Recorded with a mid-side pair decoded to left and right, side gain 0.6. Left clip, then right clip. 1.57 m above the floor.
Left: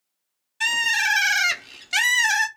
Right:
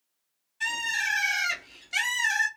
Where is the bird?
50° left, 0.6 m.